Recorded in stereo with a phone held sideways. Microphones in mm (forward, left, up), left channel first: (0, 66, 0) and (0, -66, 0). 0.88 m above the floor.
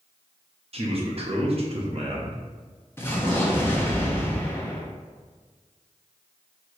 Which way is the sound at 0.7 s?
50° right (ahead or behind).